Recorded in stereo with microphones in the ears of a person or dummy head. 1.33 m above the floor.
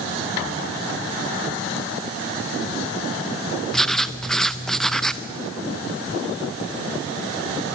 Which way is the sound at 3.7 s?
5° left (ahead or behind).